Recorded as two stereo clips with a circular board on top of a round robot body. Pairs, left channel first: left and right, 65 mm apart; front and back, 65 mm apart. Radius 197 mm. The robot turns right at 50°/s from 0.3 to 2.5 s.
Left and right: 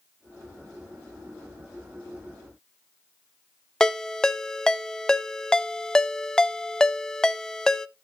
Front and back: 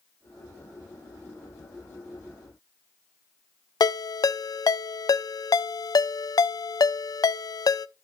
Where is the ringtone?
10° left, 0.5 m.